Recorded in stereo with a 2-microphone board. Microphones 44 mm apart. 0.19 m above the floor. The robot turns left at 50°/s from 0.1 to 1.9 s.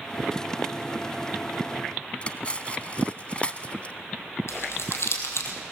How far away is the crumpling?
About 3 m.